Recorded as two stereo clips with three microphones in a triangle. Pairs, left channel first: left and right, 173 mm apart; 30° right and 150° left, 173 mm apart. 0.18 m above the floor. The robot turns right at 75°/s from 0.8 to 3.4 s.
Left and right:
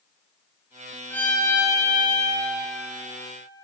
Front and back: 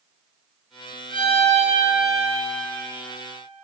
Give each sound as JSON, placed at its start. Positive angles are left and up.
{"t": 1.1, "sound": "a violin", "azimuth_deg": 160, "distance_m": 0.9}